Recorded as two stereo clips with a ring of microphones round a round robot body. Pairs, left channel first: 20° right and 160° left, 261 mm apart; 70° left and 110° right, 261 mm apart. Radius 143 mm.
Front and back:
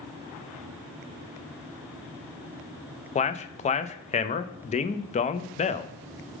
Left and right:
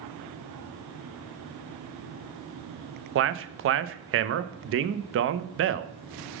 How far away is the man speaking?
About 0.5 m.